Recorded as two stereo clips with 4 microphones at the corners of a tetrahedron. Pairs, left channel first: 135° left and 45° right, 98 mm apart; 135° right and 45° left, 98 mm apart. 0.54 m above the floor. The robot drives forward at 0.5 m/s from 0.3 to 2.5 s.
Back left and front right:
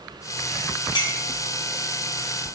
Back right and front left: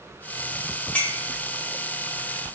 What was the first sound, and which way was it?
A clink, 150° left.